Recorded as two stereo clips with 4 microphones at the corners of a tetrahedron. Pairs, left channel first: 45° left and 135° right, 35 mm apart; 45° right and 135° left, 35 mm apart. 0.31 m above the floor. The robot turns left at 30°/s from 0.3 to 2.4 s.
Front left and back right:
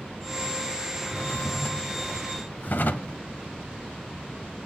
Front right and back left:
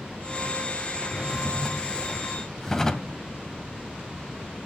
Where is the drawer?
70° left, 0.7 m; by 3.2 s 30° left, 0.7 m.